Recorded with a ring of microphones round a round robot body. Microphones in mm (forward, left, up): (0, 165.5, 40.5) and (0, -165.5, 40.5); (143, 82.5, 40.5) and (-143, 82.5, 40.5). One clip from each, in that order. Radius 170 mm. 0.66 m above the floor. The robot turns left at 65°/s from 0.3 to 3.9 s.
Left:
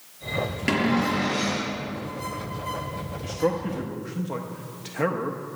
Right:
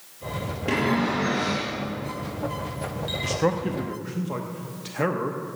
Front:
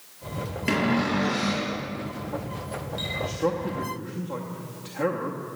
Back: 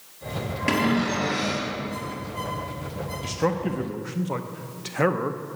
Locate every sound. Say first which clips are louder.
0.7 s a cupboard door: right 1 dB, back 1 dB; 100° left, 4.5 m; by 1.7 s 30° left, 4.5 m
3.2 s a man speaking: right 1 dB, back 3 dB; 135° right, 0.7 m; by 5.4 s straight behind, 0.7 m